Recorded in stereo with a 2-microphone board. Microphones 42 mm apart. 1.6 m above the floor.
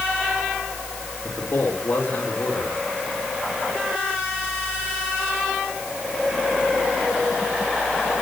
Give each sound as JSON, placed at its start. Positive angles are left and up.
{"t": 1.2, "sound": "a man speaking", "side_deg": 65, "distance_m": 5.5}